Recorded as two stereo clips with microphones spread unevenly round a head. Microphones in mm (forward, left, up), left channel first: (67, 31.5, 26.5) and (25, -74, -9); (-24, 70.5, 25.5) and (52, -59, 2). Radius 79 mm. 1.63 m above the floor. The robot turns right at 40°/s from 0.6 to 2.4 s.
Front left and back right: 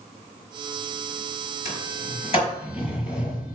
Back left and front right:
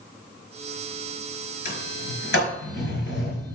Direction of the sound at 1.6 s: 95° left.